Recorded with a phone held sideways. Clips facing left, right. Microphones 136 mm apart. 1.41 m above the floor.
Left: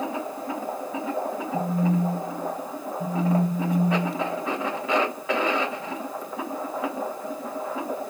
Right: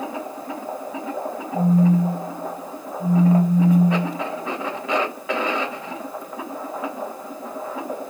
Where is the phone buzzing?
Centre (ahead or behind), 1.5 m.